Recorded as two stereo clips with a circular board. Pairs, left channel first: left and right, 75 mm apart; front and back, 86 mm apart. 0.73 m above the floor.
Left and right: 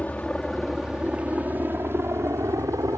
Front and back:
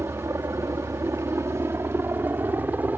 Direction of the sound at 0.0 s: 155° left.